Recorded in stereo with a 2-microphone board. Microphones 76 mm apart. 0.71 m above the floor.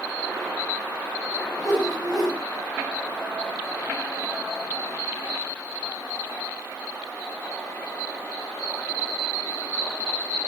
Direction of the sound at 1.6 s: 10° left (ahead or behind).